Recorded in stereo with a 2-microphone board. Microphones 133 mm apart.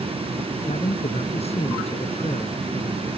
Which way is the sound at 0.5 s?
50° left (ahead or behind).